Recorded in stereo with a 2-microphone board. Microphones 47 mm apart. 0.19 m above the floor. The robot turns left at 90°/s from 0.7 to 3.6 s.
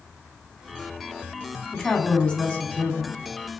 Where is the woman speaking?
Straight behind, 1.7 m; by 3.2 s 45° left, 1.7 m.